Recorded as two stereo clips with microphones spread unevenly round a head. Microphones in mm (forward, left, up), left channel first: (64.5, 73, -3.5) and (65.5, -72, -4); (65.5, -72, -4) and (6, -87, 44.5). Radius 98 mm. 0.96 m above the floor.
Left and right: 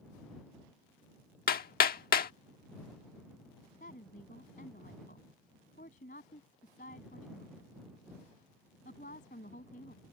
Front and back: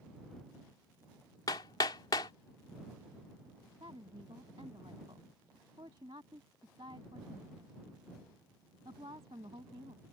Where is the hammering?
75° left.